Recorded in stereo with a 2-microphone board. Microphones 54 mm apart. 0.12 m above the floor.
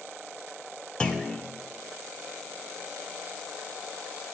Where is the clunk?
20° left (ahead or behind), 1.1 m.